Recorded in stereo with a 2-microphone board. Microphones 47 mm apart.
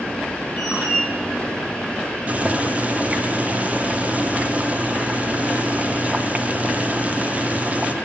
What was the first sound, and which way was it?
A squeak, 15° right (ahead or behind).